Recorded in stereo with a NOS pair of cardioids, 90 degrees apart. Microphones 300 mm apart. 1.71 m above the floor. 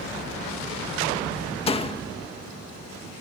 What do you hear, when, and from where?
1.7 s a door slam: 20° left